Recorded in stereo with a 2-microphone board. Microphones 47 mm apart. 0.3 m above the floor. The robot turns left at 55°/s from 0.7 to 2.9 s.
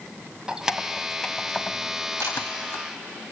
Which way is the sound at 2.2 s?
85° right.